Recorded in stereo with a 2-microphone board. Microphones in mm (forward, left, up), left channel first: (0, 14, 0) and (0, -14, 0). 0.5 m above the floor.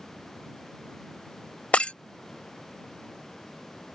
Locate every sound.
1.7 s breaking glass: 50° left (ahead or behind)